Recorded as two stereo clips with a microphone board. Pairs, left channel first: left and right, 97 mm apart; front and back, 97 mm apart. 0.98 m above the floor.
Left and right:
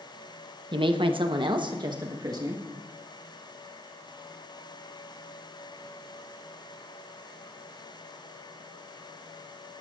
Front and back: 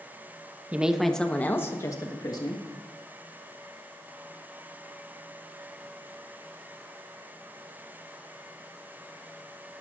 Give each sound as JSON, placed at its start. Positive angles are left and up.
{"t": 0.7, "sound": "a woman speaking", "azimuth_deg": -105, "distance_m": 0.9}